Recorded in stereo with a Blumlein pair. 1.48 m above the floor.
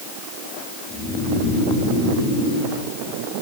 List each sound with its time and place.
0.9 s snoring: 25° left, 4.5 m